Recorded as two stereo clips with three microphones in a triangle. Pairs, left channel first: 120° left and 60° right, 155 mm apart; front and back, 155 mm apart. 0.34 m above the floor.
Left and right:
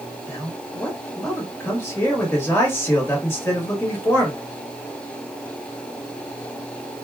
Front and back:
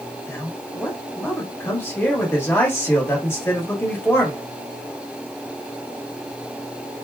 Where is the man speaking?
60° left, 1.3 m.